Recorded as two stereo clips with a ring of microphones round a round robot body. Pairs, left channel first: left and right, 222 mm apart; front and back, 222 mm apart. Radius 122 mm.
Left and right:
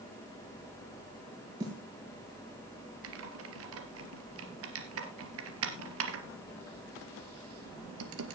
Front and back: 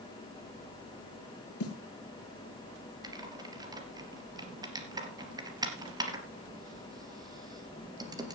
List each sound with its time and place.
1.6 s a snare drum: 15° right, 6.5 m
3.0 s typing on a keyboard: 105° right, 2.5 m